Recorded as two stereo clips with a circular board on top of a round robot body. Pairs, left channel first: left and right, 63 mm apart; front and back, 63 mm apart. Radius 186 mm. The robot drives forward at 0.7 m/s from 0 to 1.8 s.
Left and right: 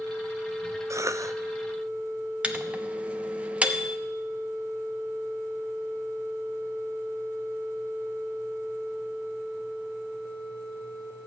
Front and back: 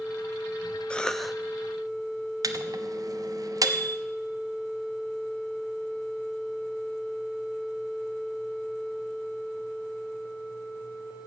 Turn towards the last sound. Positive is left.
turn(degrees=-160)